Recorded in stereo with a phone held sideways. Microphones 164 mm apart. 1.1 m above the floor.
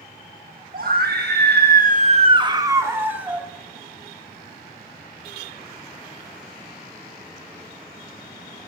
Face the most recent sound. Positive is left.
turn(degrees=-5)  # may be behind; listen again after turning